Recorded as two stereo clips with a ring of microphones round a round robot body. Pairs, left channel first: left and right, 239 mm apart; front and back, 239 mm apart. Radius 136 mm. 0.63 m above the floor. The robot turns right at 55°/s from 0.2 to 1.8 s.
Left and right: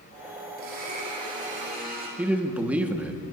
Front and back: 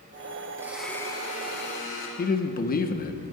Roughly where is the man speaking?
Ahead.